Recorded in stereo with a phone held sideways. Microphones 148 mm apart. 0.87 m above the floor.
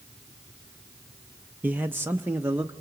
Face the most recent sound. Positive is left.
turn(degrees=-10)  # may be behind; listen again after turning